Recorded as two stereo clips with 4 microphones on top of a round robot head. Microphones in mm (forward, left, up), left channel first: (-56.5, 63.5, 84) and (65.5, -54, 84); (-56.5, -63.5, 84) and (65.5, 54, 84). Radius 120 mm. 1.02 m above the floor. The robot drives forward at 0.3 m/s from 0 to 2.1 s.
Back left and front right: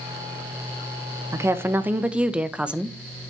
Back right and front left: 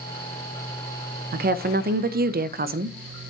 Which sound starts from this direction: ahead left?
A woman speaking, at 1.3 s.